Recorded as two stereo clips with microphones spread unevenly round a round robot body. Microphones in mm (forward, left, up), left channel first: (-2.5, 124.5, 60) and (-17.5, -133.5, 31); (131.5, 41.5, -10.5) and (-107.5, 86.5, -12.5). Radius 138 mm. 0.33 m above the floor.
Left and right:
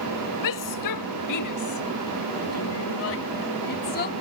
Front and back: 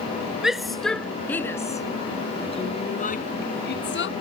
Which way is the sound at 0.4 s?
80° left.